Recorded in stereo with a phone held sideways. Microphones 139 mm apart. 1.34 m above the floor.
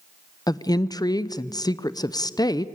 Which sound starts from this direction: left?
A woman speaking, at 0.5 s.